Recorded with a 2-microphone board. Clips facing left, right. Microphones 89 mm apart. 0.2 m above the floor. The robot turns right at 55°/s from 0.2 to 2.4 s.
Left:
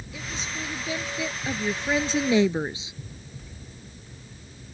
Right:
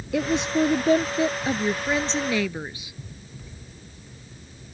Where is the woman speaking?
95° right; by 2.9 s 25° left.